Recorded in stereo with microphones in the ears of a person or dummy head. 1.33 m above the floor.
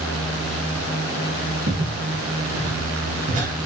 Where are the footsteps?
40° right (ahead or behind), 3 m; by 3.5 s 45° right (ahead or behind), 2 m.